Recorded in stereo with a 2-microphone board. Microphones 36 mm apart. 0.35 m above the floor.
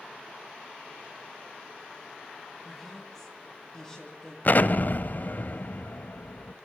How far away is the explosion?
About 1.0 m.